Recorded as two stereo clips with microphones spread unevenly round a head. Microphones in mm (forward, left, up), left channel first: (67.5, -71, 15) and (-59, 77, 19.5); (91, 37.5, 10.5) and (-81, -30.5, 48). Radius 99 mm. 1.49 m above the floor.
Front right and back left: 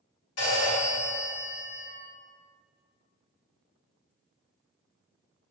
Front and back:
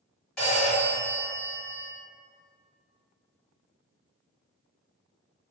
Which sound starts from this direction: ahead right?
A phone ringing, at 0.4 s.